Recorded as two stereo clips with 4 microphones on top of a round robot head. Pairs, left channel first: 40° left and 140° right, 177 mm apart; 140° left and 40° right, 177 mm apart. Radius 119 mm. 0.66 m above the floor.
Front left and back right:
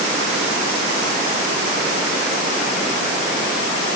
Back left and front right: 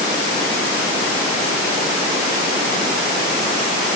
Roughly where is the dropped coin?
No dropped coin in this recording.